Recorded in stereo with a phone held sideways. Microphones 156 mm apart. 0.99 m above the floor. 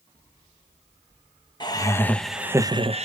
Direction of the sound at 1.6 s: 30° left (ahead or behind).